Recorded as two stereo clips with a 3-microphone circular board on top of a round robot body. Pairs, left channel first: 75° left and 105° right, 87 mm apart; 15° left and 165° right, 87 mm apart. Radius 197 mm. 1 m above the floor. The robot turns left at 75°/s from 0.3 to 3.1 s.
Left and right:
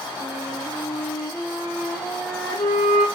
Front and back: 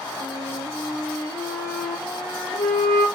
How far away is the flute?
About 1.6 m.